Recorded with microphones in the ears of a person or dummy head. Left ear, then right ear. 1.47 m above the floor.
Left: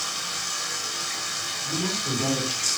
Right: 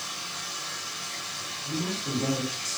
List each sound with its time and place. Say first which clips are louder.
0.0 s running water: left 5 dB; 85° left, 6 m
1.6 s a woman speaking: left 4 dB; 20° left (ahead or behind), 4.5 m